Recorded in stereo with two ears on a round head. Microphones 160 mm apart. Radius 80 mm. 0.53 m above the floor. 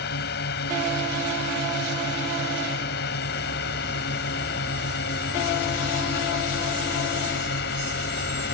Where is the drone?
60° left (ahead or behind).